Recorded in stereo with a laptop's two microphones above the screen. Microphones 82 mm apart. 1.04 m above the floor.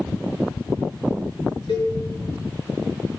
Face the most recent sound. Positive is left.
turn(degrees=85)